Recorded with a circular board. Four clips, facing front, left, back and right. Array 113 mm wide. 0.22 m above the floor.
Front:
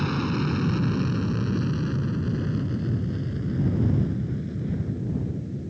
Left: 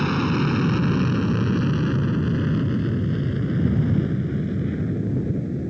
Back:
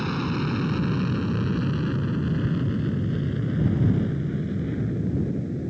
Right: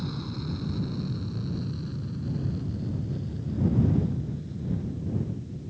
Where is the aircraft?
90° left; by 5.7 s 115° left.